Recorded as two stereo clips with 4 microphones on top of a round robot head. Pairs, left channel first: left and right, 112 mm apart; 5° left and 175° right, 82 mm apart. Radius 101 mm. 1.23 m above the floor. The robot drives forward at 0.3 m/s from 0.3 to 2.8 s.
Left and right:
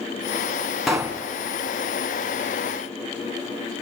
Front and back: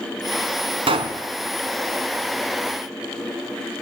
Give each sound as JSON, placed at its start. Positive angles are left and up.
{"t": 0.9, "sound": "a pop", "azimuth_deg": 180, "distance_m": 2.5}